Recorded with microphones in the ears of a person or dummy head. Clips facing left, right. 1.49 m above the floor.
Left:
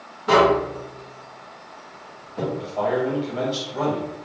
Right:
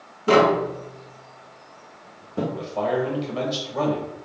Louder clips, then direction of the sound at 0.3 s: Even; 40° right (ahead or behind).